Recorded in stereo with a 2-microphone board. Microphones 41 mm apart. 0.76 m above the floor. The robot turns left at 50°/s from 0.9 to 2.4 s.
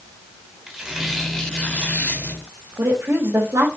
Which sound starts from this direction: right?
A woman speaking, at 2.8 s.